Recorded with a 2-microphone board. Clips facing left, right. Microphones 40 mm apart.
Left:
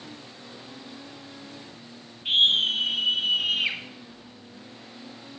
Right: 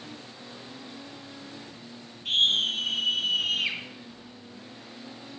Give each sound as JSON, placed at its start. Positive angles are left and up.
{"t": 2.2, "sound": "a scream", "side_deg": 30, "distance_m": 1.1}